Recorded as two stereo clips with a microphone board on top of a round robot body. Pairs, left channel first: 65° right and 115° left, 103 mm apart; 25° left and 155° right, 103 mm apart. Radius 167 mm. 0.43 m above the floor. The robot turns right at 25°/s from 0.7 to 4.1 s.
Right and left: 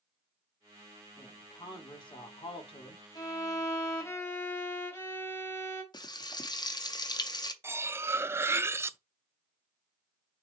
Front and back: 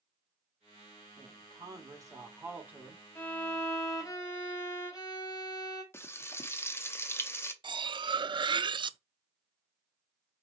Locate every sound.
1.2 s a woman speaking: 125° right, 1.8 m; by 3.0 s 75° right, 1.8 m
3.1 s a violin: 40° right, 1.8 m; by 5.8 s 15° right, 1.8 m
5.9 s frying: 35° right, 0.9 m
7.6 s cutlery clinking: 175° left, 0.5 m